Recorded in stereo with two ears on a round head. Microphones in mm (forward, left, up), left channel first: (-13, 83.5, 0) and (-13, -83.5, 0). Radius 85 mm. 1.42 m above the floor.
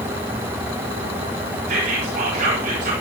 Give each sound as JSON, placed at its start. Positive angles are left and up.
{"t": 1.7, "sound": "whispering", "side_deg": -45, "distance_m": 5.0}